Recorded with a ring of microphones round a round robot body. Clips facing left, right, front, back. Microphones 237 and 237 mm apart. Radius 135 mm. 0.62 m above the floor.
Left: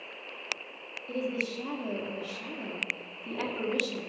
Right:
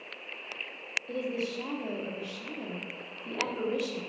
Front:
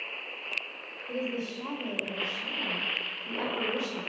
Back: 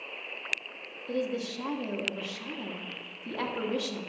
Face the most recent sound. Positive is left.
turn(degrees=180)